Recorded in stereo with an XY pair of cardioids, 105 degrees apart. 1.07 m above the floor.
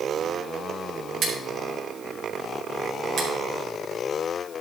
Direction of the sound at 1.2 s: 45° right.